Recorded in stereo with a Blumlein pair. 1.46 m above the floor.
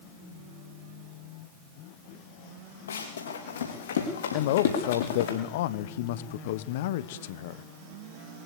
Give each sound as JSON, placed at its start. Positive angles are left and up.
{"t": 2.9, "sound": "running footsteps", "azimuth_deg": 70, "distance_m": 6.5}
{"t": 4.3, "sound": "a man speaking", "azimuth_deg": 55, "distance_m": 1.2}